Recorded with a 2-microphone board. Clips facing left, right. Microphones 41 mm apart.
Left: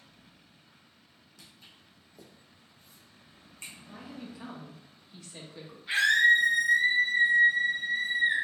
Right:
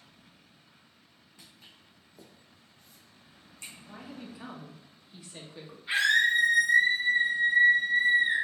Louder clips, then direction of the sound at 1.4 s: Even; 25° right (ahead or behind).